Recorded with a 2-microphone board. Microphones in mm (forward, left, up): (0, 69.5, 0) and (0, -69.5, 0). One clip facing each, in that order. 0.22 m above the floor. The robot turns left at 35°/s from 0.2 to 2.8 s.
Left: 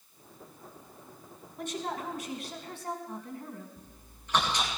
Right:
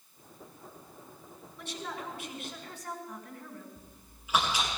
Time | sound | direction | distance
1.6 | a woman speaking | 85° left | 2 m
3.8 | chewing | 5° right (ahead or behind) | 4 m